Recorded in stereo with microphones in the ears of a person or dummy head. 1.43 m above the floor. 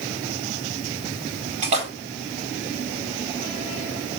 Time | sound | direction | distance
1.6 | a splash | 50° right (ahead or behind) | 1.6 m